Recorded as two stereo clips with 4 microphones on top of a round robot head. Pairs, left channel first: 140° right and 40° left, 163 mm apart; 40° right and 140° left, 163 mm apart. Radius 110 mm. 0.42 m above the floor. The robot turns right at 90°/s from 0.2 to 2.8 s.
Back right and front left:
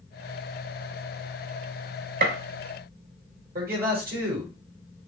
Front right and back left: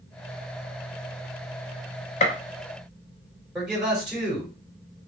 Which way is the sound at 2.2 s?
5° left.